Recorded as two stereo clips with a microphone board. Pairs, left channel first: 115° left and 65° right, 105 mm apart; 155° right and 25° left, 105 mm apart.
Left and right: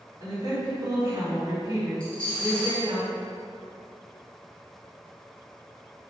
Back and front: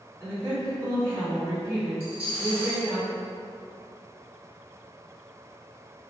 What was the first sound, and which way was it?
A woman speaking, 30° right.